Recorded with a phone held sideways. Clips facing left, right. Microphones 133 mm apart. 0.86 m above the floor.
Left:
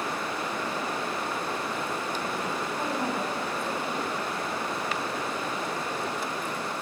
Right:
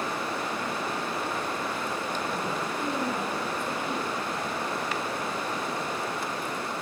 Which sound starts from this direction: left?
A woman speaking, at 2.8 s.